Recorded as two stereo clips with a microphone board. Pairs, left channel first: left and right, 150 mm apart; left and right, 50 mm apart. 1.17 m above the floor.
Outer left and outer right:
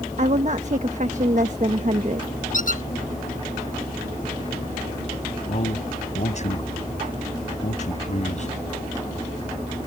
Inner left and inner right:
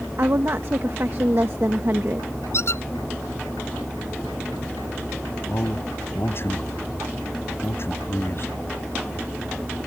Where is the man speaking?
45° left (ahead or behind).